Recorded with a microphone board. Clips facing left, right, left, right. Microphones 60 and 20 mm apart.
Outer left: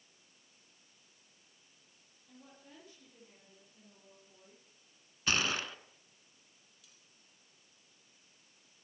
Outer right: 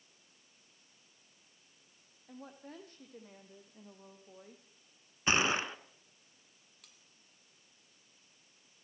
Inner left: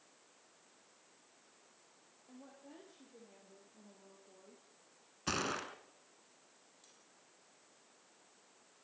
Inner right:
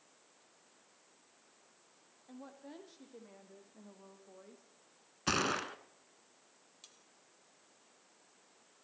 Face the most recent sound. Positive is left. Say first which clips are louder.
# outer right 5 dB, inner right 8 dB
turn(degrees=-55)  # may be behind; listen again after turning